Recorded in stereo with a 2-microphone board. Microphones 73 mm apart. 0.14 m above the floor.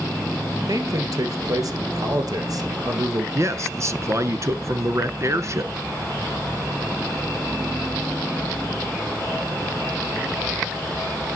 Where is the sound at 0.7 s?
55° right (ahead or behind), 2 m.